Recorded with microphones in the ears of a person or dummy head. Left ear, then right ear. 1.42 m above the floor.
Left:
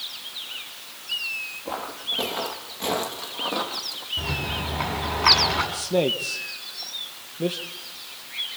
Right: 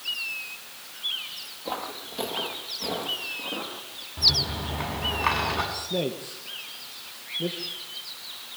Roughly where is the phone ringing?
No phone ringing in this recording.